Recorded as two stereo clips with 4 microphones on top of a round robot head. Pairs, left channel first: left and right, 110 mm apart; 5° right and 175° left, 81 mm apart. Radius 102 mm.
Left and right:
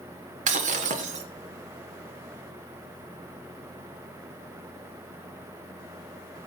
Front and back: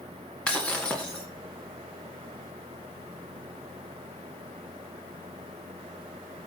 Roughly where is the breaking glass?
Right.